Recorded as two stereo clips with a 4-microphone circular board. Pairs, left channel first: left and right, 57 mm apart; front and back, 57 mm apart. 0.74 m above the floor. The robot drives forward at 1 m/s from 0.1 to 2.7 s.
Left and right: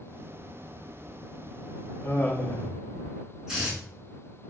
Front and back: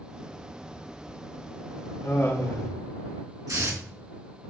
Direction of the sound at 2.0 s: 30° left.